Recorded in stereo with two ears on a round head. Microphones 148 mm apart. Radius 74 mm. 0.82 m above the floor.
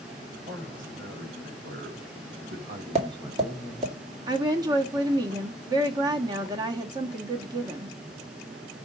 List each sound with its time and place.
0.4 s a man speaking: 75° right (ahead or behind), 4 m; by 4.0 s 25° left (ahead or behind), 1.3 m
3.0 s tapping: 35° right (ahead or behind), 1.9 m
4.3 s a woman speaking: 25° right (ahead or behind), 1.1 m